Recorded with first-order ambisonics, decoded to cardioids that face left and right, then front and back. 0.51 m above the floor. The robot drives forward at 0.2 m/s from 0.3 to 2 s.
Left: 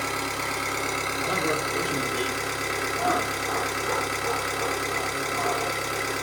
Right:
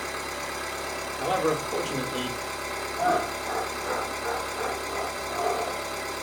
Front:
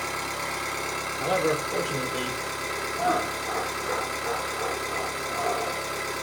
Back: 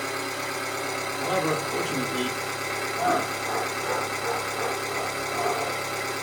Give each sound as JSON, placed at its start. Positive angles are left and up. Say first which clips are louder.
{"t": 0.0, "sound": "an engine running", "louder": "left 4 dB, even", "azimuth_deg": 80, "distance_m": 1.4}
{"t": 1.2, "sound": "a man speaking", "louder": "right 3 dB, front 1 dB", "azimuth_deg": -85, "distance_m": 0.8}
{"t": 3.0, "sound": "laughter", "louder": "right 2 dB, back 1 dB", "azimuth_deg": -150, "distance_m": 1.2}